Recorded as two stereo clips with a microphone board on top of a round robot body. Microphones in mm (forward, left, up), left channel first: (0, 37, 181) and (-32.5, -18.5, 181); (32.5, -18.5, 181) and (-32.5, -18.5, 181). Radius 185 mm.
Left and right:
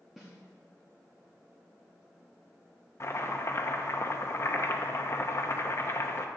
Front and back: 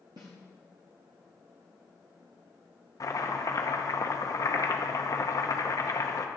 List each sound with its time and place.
0.2 s a snare drum: 155° left, 0.6 m
3.0 s chopping: 20° left, 0.9 m